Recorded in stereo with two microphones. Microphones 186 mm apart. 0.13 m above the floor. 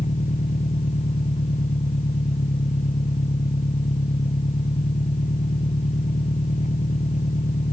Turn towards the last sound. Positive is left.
turn(degrees=40)  # may be behind; listen again after turning